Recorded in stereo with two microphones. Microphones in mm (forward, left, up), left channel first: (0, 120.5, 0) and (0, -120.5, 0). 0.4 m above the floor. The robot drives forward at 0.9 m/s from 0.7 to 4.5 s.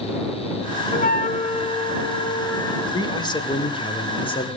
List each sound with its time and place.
0.9 s a flute: 35° left (ahead or behind), 0.7 m; by 2.8 s 15° left (ahead or behind), 1.8 m
2.9 s a man speaking: 15° left (ahead or behind), 1.7 m; by 4.5 s 20° left (ahead or behind), 1.3 m